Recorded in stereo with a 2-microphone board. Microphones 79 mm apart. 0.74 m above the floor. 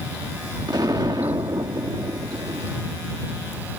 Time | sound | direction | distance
0.7 | an explosion | 60° right (ahead or behind) | ?